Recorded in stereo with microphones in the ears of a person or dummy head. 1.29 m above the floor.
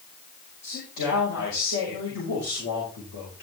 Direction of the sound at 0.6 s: 80° left.